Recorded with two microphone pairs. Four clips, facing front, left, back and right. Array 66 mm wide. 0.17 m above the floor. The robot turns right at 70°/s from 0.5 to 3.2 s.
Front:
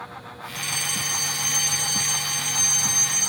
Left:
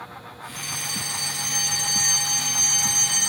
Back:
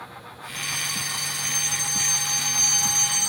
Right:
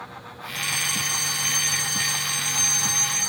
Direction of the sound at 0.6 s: 60° right.